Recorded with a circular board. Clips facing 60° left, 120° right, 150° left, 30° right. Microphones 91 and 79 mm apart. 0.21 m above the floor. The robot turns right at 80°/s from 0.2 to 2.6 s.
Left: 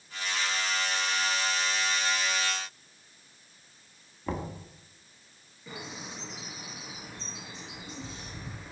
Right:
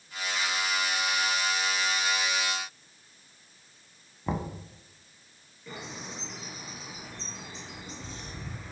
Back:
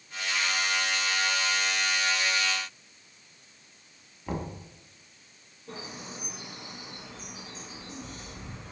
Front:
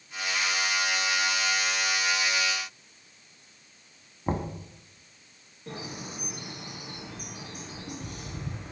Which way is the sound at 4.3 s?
50° right.